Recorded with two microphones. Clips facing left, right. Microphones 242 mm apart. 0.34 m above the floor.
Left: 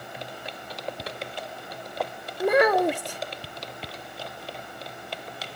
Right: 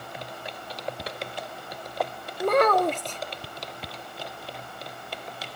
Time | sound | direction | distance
2.4 | a child speaking | 10° left (ahead or behind) | ?